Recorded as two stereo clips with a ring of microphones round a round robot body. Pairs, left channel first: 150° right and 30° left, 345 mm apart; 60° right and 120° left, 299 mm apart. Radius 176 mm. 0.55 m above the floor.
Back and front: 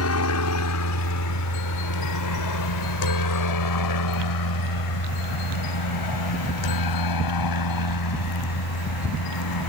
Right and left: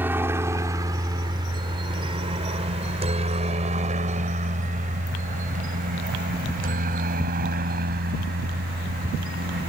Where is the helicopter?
160° right; by 9.7 s 175° right.